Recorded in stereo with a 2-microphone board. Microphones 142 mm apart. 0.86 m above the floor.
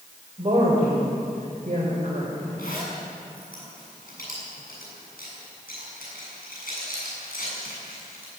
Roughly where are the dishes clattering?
No dishes clattering in this recording.